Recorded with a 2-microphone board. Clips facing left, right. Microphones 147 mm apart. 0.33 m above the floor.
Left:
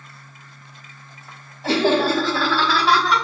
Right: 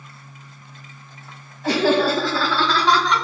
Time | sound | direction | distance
1.6 | laughter | 30° left (ahead or behind) | 2.0 m